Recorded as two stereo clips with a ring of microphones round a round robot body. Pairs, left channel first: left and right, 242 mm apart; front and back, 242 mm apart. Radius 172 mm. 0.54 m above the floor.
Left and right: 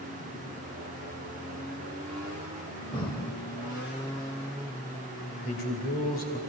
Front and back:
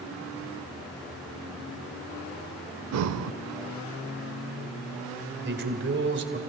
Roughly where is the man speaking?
Behind left.